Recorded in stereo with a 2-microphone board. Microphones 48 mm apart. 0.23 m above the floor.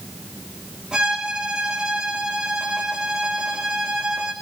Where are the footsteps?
I don't hear footsteps.